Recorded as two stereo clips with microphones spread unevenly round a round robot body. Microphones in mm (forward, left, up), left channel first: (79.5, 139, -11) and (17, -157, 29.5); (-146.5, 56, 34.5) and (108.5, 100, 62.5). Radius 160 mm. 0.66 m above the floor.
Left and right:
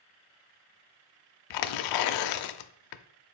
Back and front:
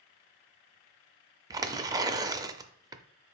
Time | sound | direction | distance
1.5 | tearing paper | 80° left | 0.5 m